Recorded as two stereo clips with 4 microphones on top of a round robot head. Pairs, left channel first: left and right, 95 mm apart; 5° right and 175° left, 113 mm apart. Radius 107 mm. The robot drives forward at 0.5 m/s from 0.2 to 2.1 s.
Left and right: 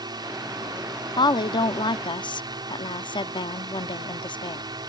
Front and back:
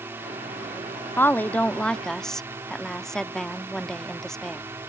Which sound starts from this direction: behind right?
A drone, at 0.0 s.